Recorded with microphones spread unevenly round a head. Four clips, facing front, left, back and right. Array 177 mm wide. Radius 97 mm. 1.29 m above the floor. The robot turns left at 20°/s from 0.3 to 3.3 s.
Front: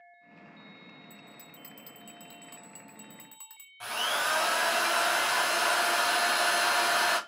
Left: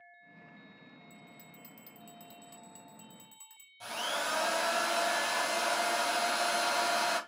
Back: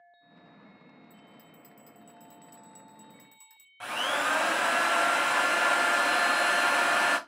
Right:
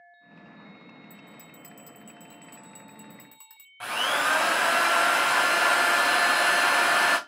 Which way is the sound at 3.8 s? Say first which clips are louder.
Right 9 dB, back 2 dB; 95° right.